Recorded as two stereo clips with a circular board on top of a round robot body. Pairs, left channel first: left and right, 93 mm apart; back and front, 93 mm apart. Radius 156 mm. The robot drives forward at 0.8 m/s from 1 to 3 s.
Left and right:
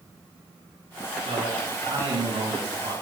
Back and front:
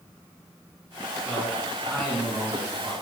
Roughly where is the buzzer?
No buzzer in this recording.